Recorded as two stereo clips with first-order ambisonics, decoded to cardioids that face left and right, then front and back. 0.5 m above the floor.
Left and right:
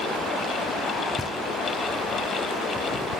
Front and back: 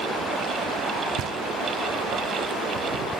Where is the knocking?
170° left, 0.5 m.